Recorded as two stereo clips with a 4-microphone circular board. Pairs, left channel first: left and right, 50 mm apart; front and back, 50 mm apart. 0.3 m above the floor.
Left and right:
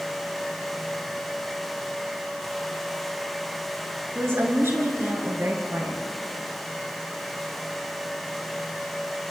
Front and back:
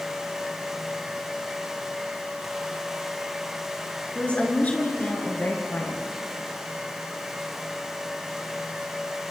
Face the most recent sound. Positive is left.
turn(degrees=-45)